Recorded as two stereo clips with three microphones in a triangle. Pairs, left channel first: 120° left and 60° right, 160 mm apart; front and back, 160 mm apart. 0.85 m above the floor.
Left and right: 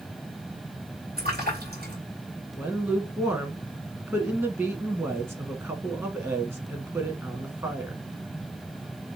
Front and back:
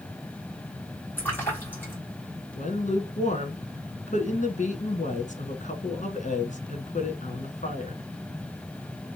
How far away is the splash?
About 2 m.